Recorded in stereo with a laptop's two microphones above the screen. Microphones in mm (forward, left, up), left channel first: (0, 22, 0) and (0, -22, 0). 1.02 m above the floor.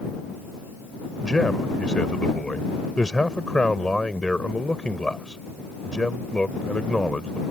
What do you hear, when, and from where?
1.2 s a man speaking: 20° left (ahead or behind)